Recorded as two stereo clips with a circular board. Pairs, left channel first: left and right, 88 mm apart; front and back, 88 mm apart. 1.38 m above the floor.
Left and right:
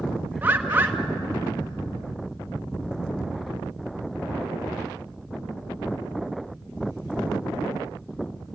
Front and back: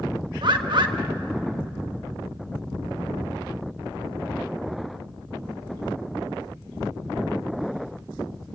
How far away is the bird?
About 1.3 m.